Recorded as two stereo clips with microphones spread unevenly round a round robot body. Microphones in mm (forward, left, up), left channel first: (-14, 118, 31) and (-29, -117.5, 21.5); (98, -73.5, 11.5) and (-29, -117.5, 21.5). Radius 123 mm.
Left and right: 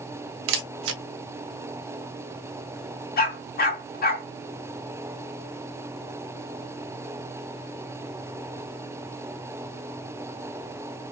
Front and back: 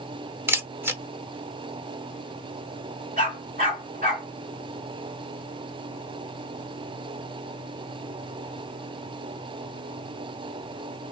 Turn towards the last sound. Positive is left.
turn(degrees=140)